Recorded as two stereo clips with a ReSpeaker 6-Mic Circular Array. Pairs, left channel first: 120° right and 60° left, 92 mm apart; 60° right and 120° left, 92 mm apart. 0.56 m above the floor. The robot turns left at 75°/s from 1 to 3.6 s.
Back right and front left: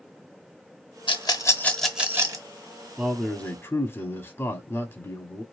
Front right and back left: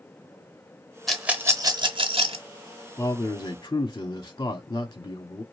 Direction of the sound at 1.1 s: 150° right.